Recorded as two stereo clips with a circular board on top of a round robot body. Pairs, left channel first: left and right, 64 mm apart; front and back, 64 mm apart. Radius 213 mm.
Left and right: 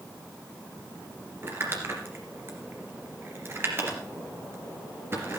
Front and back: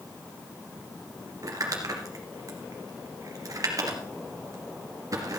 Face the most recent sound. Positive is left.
turn(degrees=-145)